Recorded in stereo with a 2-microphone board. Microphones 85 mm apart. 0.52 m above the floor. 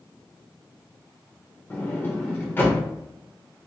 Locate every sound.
1.7 s a sliding door: 25° left (ahead or behind), 0.6 m